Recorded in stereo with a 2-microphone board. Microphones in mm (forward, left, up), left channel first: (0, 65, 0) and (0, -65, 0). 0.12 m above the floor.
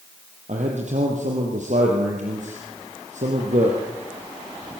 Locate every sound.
0.5 s a man speaking: 70° right (ahead or behind), 4.5 m